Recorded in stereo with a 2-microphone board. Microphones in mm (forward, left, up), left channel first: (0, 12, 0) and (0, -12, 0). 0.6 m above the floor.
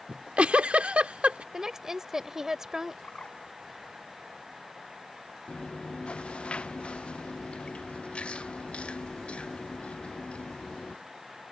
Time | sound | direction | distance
0.1 | a giggle | 65° right (ahead or behind) | ?
1.5 | a woman speaking | 25° right (ahead or behind) | ?
3.0 | a bird | 50° left (ahead or behind) | ?
5.5 | chewing | 55° left (ahead or behind) | ?